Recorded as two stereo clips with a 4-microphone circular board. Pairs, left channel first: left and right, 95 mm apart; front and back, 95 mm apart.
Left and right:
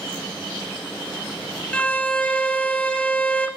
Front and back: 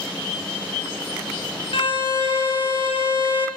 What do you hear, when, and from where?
1.7 s a violin: 15° left, 0.6 m